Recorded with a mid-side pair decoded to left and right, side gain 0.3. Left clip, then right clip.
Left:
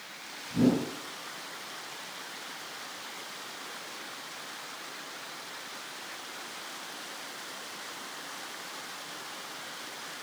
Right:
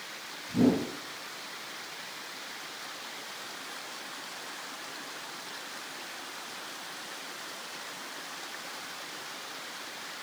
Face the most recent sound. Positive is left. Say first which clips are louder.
# right 1 dB
turn(degrees=-65)